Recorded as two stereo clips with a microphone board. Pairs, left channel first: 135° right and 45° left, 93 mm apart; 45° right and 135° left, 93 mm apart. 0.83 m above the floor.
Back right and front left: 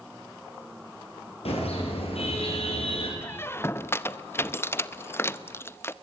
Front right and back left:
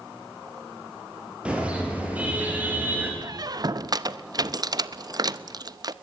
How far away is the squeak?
About 0.6 m.